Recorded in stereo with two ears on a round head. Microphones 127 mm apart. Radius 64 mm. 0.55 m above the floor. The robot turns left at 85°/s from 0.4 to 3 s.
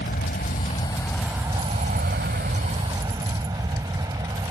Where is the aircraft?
70° left; by 4.5 s 150° right.